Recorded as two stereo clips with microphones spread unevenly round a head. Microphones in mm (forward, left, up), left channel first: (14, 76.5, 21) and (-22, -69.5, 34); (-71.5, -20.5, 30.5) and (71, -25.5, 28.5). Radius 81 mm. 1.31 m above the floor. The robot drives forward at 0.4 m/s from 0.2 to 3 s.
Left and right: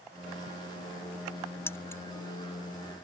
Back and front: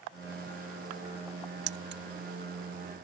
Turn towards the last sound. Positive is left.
turn(degrees=0)